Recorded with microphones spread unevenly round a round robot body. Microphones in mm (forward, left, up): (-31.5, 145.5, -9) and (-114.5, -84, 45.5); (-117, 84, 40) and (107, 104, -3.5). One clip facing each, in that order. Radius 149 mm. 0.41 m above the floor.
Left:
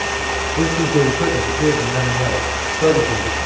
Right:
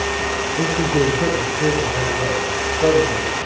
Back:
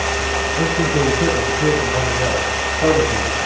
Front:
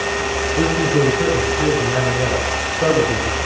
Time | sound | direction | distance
0.6 | a man speaking | 25° left | 7.5 m